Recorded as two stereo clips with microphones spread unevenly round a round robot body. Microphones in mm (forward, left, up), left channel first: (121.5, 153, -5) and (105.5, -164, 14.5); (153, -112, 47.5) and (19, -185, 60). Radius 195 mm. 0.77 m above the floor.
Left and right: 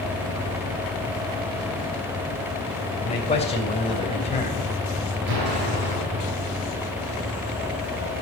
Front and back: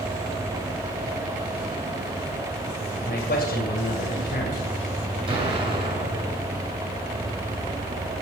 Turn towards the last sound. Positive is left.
turn(degrees=-95)